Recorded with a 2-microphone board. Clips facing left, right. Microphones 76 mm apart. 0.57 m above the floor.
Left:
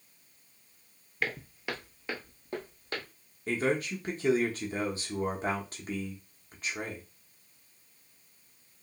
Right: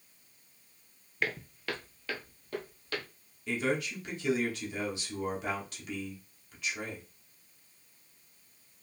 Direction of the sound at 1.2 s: Centre (ahead or behind).